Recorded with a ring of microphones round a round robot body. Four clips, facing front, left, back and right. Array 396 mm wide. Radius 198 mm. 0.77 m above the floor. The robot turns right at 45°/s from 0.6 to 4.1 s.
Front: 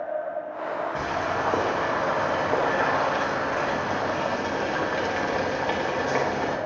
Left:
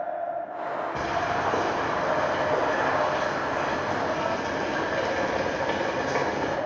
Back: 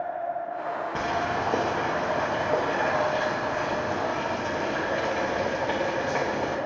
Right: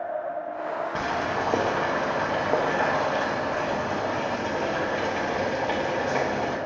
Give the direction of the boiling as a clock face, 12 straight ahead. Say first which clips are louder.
Left 1 dB, back 2 dB; 4 o'clock.